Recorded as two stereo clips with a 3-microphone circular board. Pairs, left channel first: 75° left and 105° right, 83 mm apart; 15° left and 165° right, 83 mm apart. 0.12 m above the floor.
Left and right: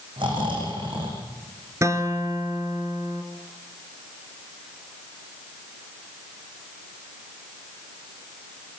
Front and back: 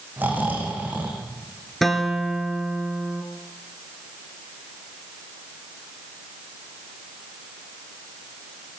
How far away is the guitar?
About 2.5 m.